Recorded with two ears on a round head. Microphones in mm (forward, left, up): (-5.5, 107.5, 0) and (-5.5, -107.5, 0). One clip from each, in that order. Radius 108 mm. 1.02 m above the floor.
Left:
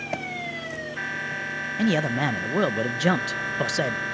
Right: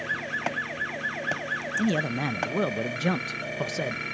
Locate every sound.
1.8 s a man speaking: 15° left (ahead or behind)